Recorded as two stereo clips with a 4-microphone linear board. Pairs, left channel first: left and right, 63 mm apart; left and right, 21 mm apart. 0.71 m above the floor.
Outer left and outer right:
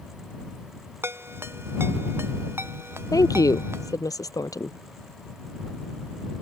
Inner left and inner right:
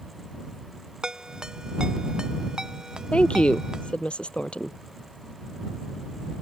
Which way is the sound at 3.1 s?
75° left (ahead or behind).